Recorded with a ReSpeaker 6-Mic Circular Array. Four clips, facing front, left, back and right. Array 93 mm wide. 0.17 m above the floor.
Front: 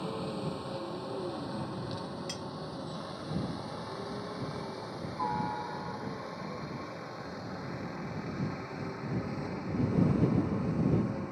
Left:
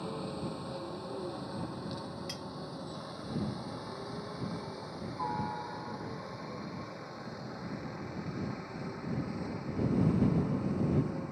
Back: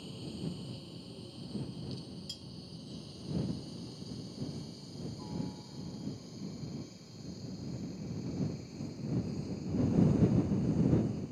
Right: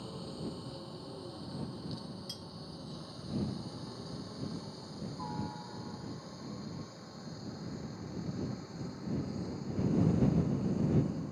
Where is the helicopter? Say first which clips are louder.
Left 4 dB, front 7 dB; 30° left; by 11.3 s 25° left.